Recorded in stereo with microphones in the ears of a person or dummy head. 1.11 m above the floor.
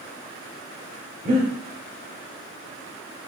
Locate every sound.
1.2 s breathing: 35° right (ahead or behind), 0.9 m